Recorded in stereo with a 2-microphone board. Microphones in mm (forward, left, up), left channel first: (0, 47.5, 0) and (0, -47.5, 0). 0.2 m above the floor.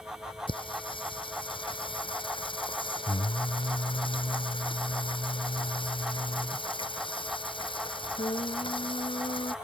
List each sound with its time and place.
0.5 s singing: 60° left (ahead or behind)